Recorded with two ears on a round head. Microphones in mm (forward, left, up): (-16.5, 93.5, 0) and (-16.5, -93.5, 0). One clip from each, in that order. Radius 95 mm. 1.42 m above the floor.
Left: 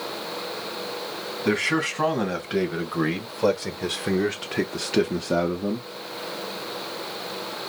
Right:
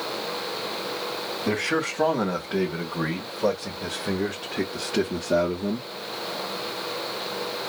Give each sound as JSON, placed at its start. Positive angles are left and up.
{"t": 1.4, "sound": "a man speaking", "side_deg": 80, "distance_m": 2.5}